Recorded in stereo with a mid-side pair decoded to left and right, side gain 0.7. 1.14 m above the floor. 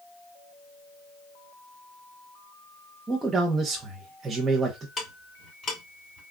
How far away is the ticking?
About 2.5 m.